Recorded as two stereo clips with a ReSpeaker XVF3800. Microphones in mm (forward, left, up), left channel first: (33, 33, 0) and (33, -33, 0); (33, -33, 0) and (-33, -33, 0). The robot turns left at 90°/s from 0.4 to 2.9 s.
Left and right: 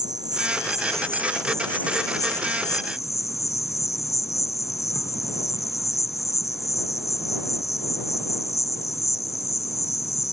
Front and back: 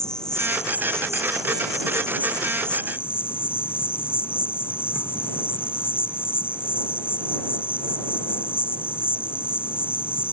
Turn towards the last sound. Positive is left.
turn(degrees=55)